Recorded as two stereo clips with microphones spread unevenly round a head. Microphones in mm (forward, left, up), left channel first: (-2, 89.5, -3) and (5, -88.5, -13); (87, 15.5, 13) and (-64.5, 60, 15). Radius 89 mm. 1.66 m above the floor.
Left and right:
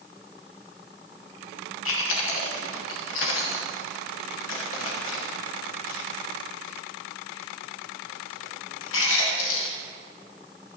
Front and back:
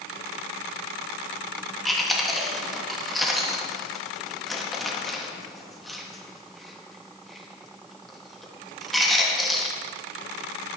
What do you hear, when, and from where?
1.9 s chewing: 75° left, 1.9 m